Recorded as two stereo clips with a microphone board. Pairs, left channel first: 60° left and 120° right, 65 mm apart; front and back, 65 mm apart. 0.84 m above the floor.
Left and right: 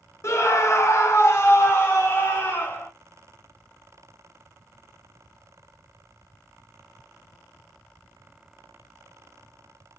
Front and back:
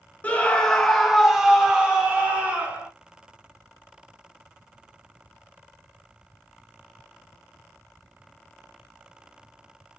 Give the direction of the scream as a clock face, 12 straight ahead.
10 o'clock.